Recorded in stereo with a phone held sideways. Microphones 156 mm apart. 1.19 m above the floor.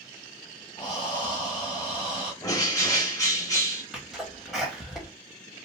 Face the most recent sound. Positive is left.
turn(degrees=0)  # may be behind; listen again after turning